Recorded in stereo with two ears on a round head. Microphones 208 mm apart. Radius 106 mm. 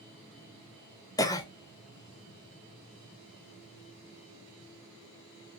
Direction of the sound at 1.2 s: 15° left (ahead or behind).